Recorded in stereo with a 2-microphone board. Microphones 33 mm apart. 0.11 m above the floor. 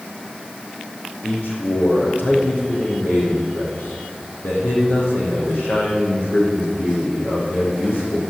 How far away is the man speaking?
About 5.5 m.